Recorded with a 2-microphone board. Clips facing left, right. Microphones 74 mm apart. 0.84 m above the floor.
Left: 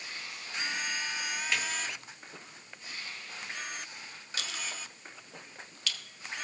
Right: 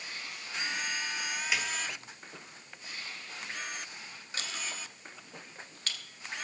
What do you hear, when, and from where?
1.5 s a snare drum: 5° right (ahead or behind), 1.8 m
4.4 s a clink: 40° right (ahead or behind), 1.5 m